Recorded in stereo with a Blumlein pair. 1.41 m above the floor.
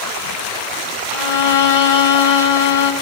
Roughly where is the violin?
Ahead left.